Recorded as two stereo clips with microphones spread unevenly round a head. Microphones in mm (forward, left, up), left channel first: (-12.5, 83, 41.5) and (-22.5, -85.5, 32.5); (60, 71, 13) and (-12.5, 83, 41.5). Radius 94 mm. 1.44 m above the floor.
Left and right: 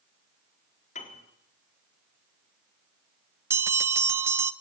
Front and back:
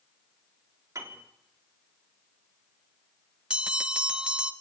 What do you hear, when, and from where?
0.9 s a piano: 130° left, 4 m
3.5 s a bell: 165° right, 0.6 m